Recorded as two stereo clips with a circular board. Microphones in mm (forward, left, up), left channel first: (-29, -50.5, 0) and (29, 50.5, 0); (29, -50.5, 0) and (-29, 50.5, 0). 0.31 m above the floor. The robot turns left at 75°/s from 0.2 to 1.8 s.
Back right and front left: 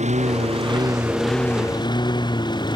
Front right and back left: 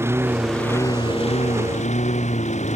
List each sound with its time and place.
0.0 s a lawn mower: 50° left; by 2.8 s 70° right